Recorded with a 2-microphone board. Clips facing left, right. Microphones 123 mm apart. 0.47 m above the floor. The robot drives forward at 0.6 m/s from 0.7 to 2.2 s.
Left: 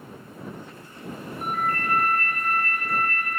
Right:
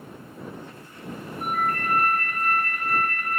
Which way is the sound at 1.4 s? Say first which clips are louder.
Right 1 dB; 45° right (ahead or behind).